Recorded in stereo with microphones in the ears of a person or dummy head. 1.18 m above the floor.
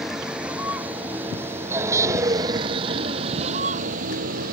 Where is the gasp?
I don't hear a gasp.